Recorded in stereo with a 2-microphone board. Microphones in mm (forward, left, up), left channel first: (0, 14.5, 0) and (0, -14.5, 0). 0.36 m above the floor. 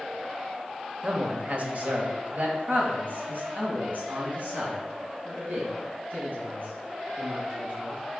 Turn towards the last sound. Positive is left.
turn(degrees=-70)  # may be behind; listen again after turning